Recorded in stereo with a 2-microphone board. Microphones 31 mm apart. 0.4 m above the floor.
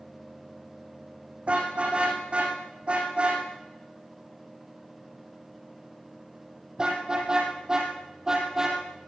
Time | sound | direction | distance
1.5 | a car horn | 40° right (ahead or behind) | 8 m